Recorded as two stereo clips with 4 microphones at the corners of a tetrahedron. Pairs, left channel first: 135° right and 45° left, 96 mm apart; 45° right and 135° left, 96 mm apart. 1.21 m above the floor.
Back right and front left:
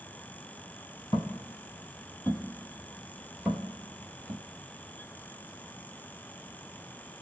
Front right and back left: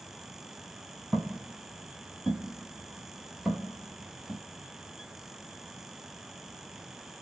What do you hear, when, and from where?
1.1 s footsteps: 135° right, 1.5 m; by 4.4 s 50° left, 1.3 m